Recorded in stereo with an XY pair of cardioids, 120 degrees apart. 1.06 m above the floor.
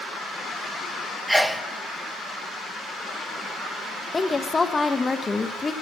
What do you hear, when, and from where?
1.3 s a sneeze: 5° right, 0.7 m
4.1 s a woman speaking: 20° left, 0.8 m